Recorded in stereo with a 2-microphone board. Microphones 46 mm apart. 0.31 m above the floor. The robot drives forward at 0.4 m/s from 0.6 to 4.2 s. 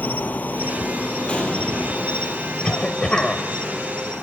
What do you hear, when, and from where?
0.0 s an insect: 40° left (ahead or behind), 0.8 m; by 4.2 s 15° left (ahead or behind), 2 m
1.3 s an explosion: 25° left (ahead or behind), 1.5 m; by 2.4 s 35° left (ahead or behind), 1.1 m
2.6 s a cough: 20° left (ahead or behind), 1.2 m